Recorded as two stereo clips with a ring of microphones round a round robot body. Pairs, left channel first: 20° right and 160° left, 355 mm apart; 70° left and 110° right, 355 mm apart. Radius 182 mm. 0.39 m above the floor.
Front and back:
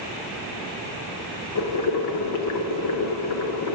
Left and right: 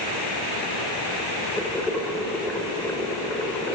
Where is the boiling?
20° right, 0.7 m.